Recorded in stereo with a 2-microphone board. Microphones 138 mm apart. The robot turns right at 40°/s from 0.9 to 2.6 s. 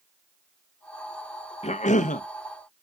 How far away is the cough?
About 0.5 m.